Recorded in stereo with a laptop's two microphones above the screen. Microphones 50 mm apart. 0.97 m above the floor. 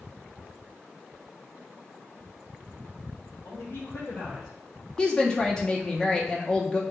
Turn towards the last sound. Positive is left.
turn(degrees=15)  # may be behind; listen again after turning